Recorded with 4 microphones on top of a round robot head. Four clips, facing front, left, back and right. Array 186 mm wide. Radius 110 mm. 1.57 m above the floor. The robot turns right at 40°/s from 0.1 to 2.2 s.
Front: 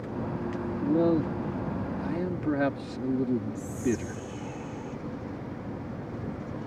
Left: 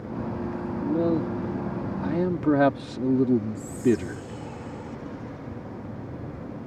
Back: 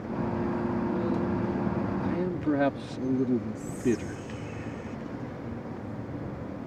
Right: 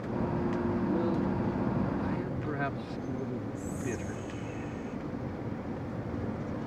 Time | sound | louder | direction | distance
0.8 | a man speaking | left 10 dB, front 4 dB | 35° left | ?
3.5 | whispering | left 11 dB, back 1 dB | 50° left | ?